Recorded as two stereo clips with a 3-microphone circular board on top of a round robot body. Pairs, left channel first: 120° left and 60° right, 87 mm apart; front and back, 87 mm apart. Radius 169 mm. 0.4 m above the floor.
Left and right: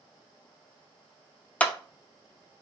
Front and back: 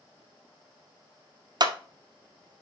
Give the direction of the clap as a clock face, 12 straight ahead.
6 o'clock.